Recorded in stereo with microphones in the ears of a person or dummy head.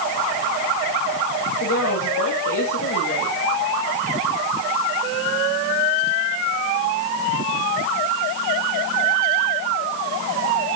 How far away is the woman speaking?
About 3.5 m.